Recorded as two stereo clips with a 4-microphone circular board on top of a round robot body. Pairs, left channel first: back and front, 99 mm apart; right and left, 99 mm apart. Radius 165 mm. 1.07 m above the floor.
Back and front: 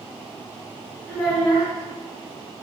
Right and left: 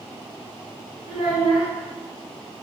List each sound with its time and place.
1.1 s a child speaking: 120° right, 1.7 m